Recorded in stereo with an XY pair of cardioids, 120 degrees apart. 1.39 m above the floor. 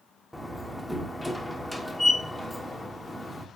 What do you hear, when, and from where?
0.3 s a door slam: 5° left, 1.2 m